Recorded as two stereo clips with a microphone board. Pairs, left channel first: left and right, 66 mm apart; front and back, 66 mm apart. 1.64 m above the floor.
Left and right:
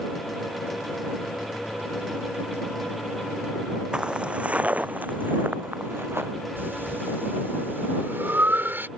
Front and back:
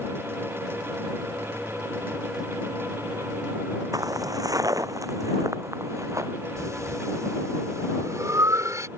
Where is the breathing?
145° right.